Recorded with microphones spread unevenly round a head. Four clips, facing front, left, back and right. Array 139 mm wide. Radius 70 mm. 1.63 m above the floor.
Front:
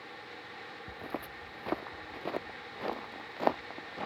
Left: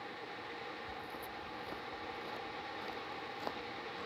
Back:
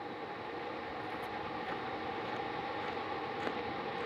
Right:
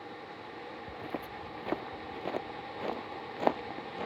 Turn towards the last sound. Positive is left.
turn(degrees=-55)